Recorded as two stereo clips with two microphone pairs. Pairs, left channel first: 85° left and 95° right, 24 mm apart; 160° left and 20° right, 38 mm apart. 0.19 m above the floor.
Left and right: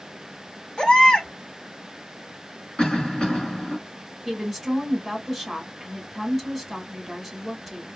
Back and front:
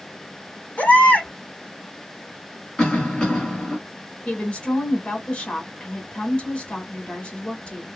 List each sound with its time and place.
0.8 s a baby crying: 120° left, 1.3 m
2.8 s a cough: 90° left, 1.6 m
4.2 s a woman speaking: 165° left, 1.5 m